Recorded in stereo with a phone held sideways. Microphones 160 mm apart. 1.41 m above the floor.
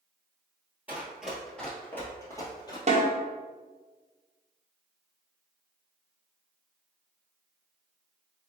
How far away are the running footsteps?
About 1.4 m.